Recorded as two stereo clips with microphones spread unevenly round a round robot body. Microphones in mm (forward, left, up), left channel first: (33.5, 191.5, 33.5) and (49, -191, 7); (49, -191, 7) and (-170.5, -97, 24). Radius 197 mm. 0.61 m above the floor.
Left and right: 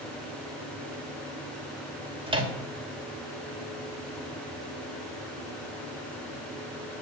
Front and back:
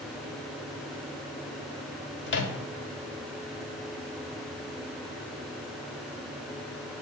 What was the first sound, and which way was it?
A microwave, 15° right.